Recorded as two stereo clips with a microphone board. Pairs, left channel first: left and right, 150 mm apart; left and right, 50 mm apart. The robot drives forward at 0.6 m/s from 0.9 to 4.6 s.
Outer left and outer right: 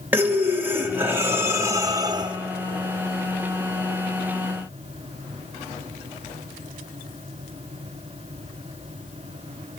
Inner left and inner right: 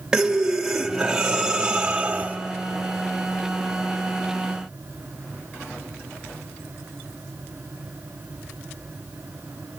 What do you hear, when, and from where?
0.1 s breathing: 10° right (ahead or behind), 1.3 m; by 2.4 s 30° right (ahead or behind), 0.5 m